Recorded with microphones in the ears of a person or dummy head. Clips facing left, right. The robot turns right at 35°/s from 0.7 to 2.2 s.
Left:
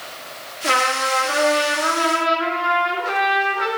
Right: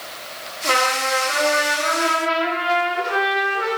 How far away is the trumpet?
About 3 m.